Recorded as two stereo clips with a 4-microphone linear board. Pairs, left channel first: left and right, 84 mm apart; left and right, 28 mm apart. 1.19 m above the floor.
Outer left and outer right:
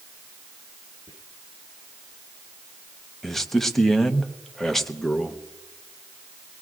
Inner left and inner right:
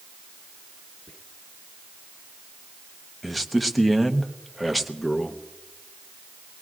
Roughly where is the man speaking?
Centre.